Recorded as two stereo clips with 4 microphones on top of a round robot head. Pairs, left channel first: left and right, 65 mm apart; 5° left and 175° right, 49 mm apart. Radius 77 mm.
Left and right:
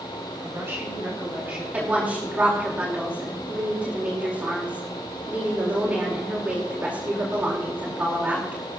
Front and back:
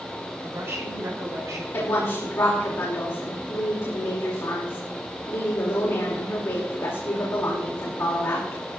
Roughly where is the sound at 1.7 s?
Ahead right.